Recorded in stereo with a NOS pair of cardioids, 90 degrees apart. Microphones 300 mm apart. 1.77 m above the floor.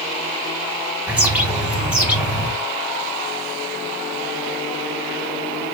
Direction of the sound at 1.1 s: 5° right.